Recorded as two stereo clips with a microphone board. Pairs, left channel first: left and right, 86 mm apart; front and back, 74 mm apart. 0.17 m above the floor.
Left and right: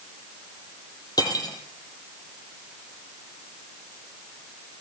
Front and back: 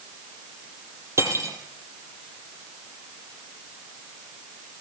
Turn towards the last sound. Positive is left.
turn(degrees=130)